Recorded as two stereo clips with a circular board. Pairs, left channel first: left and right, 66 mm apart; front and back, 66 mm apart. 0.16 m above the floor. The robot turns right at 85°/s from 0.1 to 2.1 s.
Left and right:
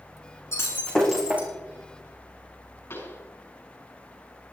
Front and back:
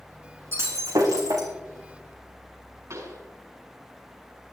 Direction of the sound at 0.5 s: 130° left.